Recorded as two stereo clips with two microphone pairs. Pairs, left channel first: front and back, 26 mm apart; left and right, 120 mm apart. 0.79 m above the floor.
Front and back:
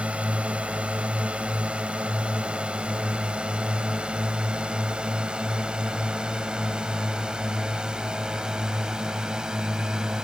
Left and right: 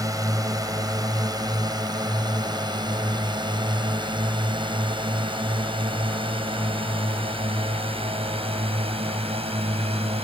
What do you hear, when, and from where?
0.0 s a drone: 150° right; by 10.2 s 120° right